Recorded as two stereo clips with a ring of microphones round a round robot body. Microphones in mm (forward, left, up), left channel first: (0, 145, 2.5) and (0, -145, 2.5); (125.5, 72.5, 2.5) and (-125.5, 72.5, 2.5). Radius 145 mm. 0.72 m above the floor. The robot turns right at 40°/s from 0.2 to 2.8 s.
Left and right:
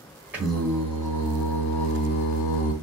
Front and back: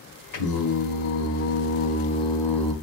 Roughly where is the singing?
Ahead.